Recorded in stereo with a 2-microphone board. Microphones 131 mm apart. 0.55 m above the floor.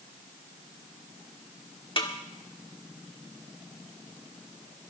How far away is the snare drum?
About 1.5 m.